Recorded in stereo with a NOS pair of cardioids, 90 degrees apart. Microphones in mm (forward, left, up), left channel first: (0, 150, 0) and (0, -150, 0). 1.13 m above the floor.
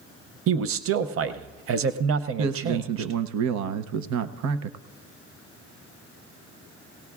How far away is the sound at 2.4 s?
About 0.7 m.